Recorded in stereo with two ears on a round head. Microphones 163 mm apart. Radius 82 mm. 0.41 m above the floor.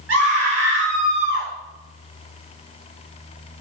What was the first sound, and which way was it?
A scream, 75° right (ahead or behind).